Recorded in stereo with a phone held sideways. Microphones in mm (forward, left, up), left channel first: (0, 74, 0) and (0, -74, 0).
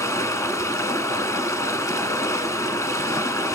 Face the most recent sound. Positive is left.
turn(degrees=20)  # may be behind; listen again after turning